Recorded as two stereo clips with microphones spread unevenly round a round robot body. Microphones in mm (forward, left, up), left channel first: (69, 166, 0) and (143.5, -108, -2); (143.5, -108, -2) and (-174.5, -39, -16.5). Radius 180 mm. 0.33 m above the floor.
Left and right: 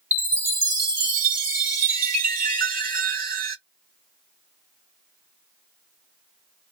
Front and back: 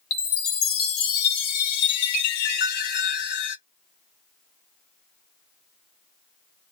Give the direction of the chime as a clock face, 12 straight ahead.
12 o'clock.